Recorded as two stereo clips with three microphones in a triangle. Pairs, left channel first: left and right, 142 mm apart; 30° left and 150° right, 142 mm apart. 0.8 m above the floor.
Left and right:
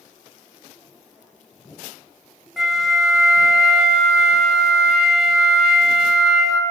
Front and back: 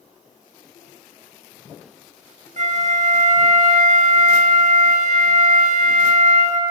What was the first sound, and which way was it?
A flute, 175° right.